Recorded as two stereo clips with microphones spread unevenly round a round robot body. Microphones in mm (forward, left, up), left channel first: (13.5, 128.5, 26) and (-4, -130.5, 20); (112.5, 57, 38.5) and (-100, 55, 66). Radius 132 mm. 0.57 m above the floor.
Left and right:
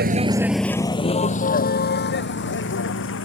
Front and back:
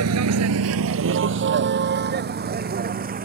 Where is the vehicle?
150° right; by 3.2 s 130° left.